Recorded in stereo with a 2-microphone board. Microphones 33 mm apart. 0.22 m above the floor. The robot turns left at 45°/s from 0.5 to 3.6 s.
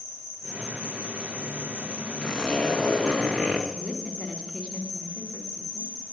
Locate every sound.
0.0 s an insect: straight ahead, 8 m; by 6.1 s 140° right, 8 m
2.2 s a zipper: 15° left, 2 m; by 3.6 s 45° right, 2 m
3.7 s a woman speaking: 25° right (ahead or behind), 2.5 m